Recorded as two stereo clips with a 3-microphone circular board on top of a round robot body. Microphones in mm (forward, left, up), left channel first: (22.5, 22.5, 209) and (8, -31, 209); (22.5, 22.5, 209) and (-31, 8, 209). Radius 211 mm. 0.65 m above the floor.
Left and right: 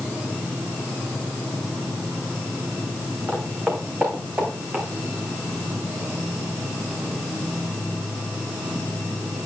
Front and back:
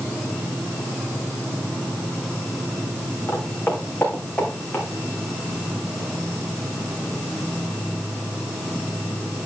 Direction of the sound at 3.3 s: 35° right.